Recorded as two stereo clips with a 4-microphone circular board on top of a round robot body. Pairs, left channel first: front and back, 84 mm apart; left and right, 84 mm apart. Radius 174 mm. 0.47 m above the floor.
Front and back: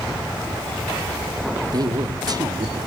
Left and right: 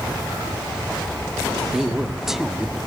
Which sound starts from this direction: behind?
A man speaking, at 1.7 s.